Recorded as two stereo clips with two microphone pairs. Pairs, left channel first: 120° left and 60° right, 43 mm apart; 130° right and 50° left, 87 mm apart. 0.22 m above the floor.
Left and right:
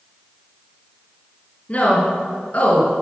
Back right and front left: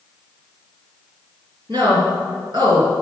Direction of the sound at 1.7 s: 70° left.